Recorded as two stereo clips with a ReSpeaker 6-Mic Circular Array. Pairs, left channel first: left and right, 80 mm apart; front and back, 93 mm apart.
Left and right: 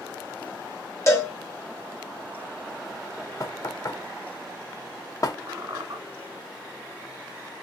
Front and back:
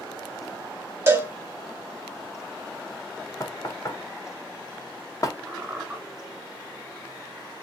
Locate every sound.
1.1 s a cowbell: 125° left, 0.9 m
3.4 s knocking: 50° left, 0.6 m
5.5 s a squeak: 110° right, 1.7 m